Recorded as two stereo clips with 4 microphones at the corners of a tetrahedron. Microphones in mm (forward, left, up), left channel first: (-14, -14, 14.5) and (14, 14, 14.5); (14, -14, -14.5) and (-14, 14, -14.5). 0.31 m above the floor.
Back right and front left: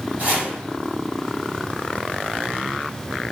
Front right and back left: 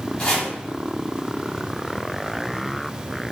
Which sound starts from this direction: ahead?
Chopping, at 0.2 s.